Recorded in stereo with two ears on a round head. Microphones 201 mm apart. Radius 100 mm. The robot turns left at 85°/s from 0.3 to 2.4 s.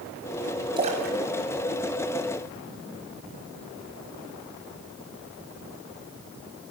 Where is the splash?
20° right (ahead or behind), 5 m.